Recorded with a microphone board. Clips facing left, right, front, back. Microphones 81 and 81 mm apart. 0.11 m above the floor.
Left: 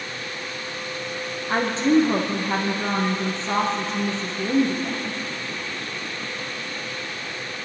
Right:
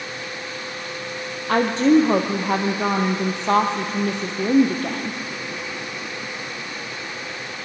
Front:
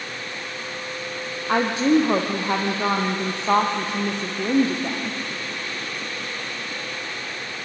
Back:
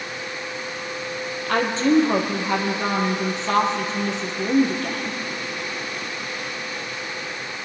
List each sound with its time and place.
1.5 s a woman speaking: 75° right, 3 m